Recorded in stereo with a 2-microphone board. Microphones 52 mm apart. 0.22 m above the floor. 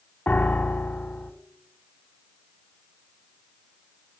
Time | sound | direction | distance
0.3 | a piano | 35° left (ahead or behind) | 0.7 m